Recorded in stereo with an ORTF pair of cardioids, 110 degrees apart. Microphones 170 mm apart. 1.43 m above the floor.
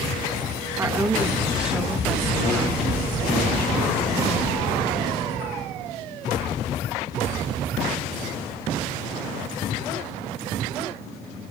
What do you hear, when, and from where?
0.8 s a woman speaking: 15° right, 1.8 m; by 4.4 s 20° left, 3 m